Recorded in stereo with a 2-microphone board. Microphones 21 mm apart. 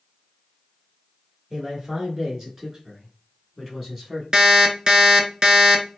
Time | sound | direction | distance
1.5 | a man speaking | 20° right (ahead or behind) | 1.5 m
4.3 | an alarm clock | 30° right (ahead or behind) | 0.5 m